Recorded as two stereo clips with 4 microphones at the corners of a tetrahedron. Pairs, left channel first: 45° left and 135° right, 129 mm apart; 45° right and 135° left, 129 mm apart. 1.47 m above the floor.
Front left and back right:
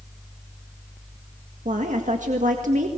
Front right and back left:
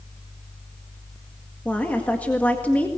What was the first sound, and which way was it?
A woman speaking, 125° right.